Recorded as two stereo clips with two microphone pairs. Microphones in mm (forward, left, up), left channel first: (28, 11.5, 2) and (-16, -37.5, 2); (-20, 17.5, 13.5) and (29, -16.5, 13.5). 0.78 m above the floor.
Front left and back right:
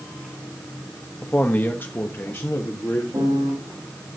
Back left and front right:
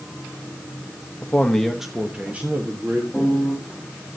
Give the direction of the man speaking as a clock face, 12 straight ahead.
9 o'clock.